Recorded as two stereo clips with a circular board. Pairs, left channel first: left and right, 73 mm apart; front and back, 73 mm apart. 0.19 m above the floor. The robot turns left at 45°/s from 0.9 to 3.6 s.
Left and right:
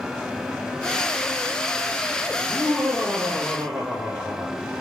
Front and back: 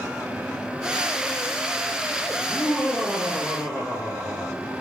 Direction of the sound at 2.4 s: 110° right.